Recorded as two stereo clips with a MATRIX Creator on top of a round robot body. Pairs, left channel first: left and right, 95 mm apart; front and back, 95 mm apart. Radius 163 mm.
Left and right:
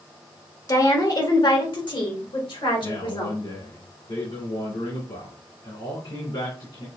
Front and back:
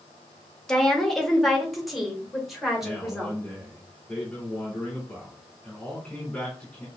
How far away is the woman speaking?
About 1.5 m.